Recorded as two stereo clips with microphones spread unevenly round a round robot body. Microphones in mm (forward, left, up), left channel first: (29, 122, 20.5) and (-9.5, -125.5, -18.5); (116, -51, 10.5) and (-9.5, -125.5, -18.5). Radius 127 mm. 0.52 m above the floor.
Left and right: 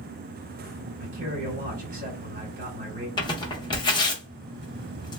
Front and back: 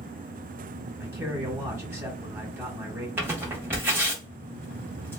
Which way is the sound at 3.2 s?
155° left.